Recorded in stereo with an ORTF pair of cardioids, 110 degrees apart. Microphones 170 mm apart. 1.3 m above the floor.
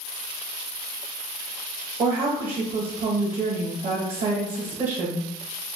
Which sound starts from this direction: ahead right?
A woman speaking, at 2.0 s.